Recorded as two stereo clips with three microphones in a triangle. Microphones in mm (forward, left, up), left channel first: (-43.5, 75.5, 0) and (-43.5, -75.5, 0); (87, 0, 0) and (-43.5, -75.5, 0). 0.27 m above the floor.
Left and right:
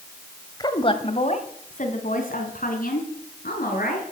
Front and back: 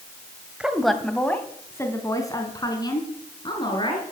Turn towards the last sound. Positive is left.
turn(degrees=85)